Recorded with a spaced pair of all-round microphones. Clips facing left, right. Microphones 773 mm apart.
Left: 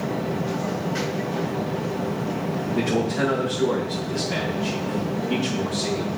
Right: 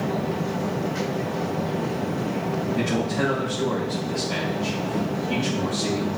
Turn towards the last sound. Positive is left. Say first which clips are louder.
# left 3 dB
turn(degrees=-10)  # may be behind; listen again after turning